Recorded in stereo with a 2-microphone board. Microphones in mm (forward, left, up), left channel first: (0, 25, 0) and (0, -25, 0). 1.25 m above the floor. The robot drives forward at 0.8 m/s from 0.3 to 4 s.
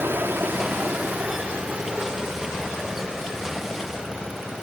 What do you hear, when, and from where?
0.0 s running water: 45° right (ahead or behind), 0.9 m; by 4.6 s 10° right (ahead or behind), 3 m